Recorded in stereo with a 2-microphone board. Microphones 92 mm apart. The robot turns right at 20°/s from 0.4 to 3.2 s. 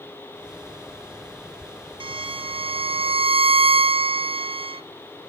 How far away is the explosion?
I don't hear an explosion.